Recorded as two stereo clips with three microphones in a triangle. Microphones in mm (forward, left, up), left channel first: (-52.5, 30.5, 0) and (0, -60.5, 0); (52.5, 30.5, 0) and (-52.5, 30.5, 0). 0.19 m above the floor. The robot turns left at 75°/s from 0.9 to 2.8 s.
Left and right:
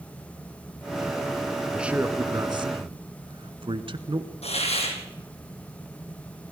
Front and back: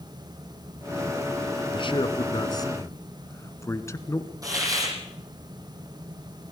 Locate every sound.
1.7 s a man speaking: 30° left, 1.6 m; by 4.3 s 55° right, 1.6 m
4.4 s a hiss: 125° left, 5 m